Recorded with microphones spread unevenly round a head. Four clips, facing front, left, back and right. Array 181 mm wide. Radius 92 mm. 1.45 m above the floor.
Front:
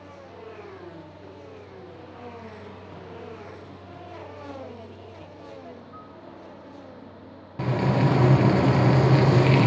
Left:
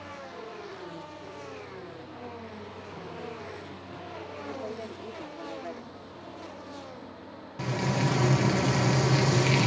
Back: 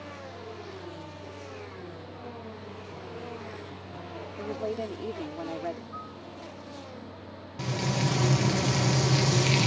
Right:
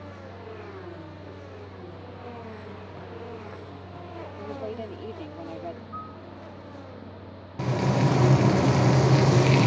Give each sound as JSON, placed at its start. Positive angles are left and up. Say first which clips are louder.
{"t": 4.4, "sound": "a woman speaking", "louder": "right 3 dB, back 6 dB", "azimuth_deg": -165}
{"t": 5.9, "sound": "a piano", "louder": "right 6 dB, back 2 dB", "azimuth_deg": -125}
{"t": 7.6, "sound": "frying", "louder": "right 4 dB, front 7 dB", "azimuth_deg": -25}